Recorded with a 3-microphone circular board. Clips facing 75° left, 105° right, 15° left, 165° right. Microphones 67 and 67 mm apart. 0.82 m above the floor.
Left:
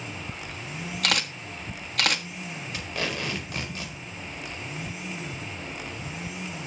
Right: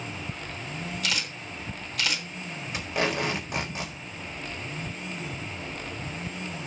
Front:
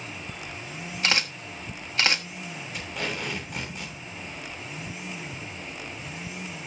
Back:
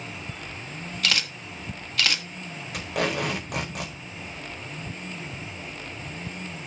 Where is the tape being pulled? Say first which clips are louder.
Right 5 dB, back 7 dB; 170° right, 4.5 m.